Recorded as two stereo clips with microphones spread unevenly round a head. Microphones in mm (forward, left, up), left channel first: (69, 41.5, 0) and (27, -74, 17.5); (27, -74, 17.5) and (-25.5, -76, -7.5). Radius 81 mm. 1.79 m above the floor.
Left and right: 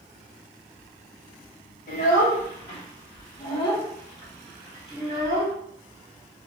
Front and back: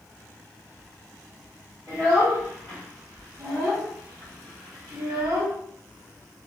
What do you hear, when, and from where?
1.9 s a child speaking: 100° left, 1.5 m; by 5.5 s 170° right, 1.8 m